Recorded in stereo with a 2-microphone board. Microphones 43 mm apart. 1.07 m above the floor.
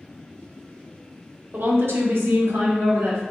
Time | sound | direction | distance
1.5 | a woman speaking | 50° right (ahead or behind) | 0.6 m